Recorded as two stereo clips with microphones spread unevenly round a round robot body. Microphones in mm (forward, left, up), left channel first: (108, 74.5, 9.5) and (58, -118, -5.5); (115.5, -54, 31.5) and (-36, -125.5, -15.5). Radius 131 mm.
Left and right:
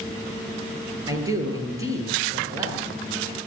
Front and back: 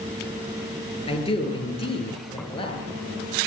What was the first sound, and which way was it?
A man speaking, 30° right.